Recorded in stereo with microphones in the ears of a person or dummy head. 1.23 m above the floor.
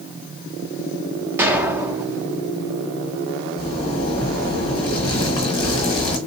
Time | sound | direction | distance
1.4 | an explosion | 15° right (ahead or behind) | 0.7 m
3.6 | a zipper | 25° left (ahead or behind) | 1.1 m